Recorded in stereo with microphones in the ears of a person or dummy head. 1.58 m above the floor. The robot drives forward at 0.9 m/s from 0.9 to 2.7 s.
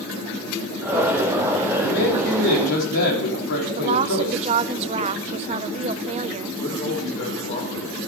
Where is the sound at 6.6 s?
45° left (ahead or behind), 5 m.